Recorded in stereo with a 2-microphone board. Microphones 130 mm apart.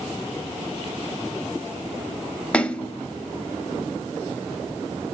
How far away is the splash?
About 0.5 m.